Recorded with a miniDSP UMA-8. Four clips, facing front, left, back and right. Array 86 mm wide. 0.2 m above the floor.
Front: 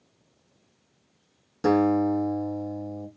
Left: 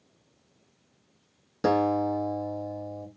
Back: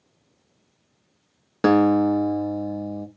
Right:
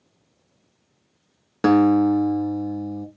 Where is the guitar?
140° right, 0.6 m.